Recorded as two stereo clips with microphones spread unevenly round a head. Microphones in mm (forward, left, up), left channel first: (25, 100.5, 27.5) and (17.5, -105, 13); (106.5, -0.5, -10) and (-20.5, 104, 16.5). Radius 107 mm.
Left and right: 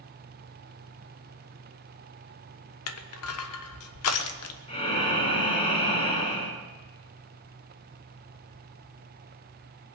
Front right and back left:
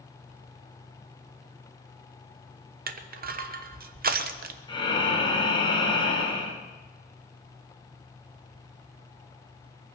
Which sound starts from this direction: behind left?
Crushing, at 2.9 s.